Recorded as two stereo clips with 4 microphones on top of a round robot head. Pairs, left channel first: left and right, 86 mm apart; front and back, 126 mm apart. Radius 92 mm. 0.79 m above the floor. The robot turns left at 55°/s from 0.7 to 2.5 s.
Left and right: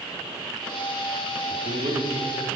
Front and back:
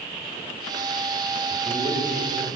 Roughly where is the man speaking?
Right.